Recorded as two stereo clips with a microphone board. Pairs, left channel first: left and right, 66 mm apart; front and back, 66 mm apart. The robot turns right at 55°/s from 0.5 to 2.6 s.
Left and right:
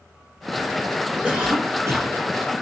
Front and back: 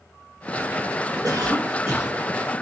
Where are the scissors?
No scissors in this recording.